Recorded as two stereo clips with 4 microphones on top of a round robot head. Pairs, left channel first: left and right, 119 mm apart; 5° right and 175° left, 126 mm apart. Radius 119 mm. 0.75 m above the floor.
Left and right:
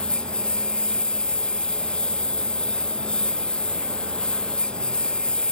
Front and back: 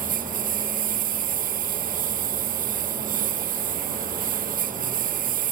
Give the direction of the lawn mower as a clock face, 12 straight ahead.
6 o'clock.